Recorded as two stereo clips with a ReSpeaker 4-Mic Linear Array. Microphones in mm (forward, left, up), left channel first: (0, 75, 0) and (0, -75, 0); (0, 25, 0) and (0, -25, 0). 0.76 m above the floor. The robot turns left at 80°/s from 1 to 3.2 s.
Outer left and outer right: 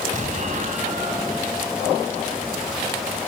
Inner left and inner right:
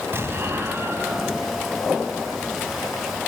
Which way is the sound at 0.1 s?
55° right (ahead or behind).